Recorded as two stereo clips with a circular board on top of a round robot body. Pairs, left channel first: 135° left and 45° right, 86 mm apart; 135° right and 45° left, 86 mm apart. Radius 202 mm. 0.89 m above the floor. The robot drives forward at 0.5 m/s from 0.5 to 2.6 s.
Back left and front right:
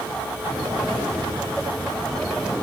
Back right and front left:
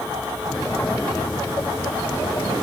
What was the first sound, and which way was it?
Only background noise.